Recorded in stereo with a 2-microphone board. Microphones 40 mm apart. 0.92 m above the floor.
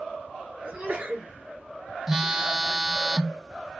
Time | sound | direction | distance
0.6 | a sneeze | 40° right (ahead or behind) | 2.5 m
2.1 | a phone buzzing | 10° right (ahead or behind) | 0.6 m